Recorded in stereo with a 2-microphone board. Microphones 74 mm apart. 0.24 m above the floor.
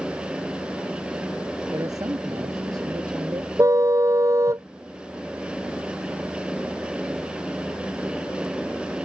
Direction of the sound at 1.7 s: 50° right (ahead or behind).